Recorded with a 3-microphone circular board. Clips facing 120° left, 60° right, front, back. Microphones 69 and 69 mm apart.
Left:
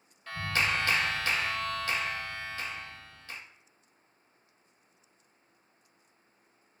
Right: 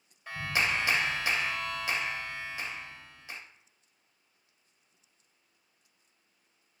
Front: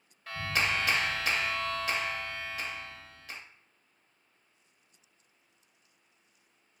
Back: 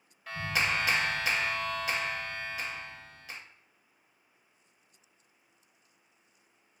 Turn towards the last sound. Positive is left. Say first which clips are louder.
# even, even
turn(degrees=-95)